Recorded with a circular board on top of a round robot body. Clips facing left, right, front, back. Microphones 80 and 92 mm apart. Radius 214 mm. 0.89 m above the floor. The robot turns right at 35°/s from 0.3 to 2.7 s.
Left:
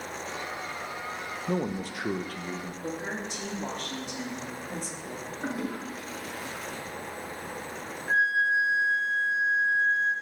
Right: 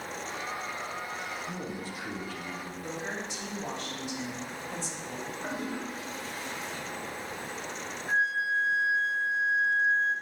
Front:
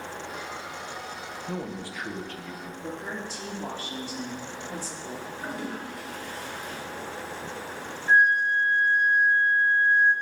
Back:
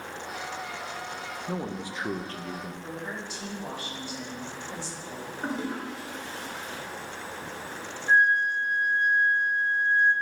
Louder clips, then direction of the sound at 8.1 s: Left 4 dB, front 1 dB; 60° left.